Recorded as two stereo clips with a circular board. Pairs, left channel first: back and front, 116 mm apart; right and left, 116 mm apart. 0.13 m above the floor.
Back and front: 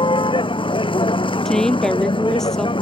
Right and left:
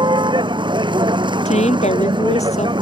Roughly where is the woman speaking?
Right.